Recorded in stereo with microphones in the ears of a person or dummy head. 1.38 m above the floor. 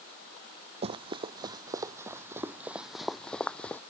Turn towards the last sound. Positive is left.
turn(degrees=10)  # may be behind; listen again after turning